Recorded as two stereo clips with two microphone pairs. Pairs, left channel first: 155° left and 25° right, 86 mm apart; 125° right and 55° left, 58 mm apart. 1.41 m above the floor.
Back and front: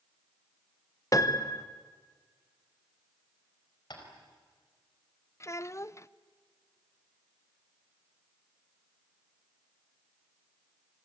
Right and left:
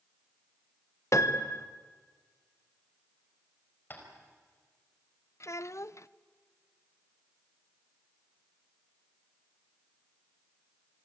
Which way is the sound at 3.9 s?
175° right.